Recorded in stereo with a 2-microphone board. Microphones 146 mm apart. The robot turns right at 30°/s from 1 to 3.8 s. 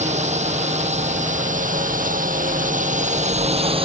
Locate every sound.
0.0 s a drone: 55° right (ahead or behind); by 3.9 s 40° right (ahead or behind)